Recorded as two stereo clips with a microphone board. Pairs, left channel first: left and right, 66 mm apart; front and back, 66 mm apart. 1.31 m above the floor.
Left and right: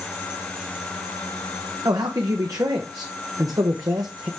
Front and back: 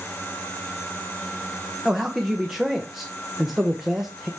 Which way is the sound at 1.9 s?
95° right.